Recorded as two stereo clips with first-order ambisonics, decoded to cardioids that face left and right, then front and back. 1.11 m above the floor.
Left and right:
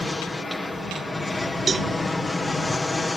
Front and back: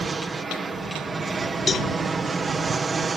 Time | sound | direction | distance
0.0 | an aircraft | 150° left | ?
1.7 | a cowbell | 45° right | ?